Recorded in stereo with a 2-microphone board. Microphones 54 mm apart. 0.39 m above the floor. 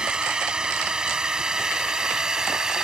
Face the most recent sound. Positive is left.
turn(degrees=-10)  # may be behind; listen again after turning